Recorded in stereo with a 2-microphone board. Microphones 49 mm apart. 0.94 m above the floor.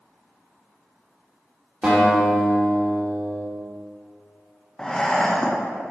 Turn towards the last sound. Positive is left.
turn(degrees=10)  # may be behind; listen again after turning